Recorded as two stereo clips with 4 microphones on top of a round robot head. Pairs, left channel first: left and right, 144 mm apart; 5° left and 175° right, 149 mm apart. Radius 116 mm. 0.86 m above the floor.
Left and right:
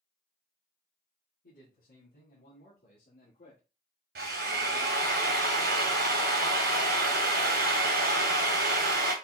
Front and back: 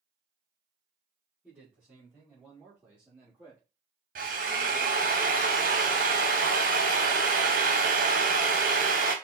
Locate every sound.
1.4 s a man speaking: 95° left, 2.5 m; by 3.6 s 110° left, 1.5 m
4.2 s a drill: 125° right, 0.7 m